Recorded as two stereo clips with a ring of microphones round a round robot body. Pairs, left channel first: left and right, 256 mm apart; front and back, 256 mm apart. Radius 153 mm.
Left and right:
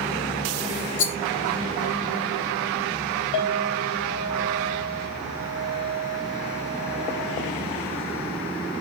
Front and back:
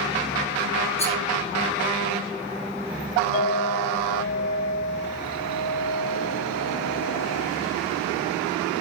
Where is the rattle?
60° left, 1.4 m.